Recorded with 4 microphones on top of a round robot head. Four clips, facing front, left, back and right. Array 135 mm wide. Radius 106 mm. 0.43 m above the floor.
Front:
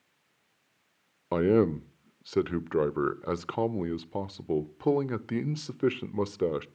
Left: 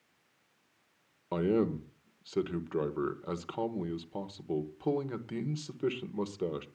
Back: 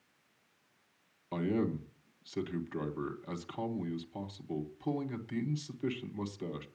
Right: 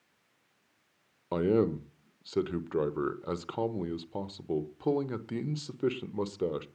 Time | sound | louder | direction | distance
1.3 | a man speaking | right 2 dB, front 9 dB | 10° right | 1.3 m